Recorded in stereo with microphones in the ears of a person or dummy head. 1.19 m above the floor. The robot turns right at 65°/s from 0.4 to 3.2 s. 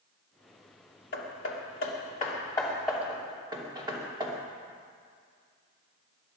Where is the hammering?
60° left (ahead or behind), 2.5 m; by 4.3 s 15° right (ahead or behind), 2.5 m.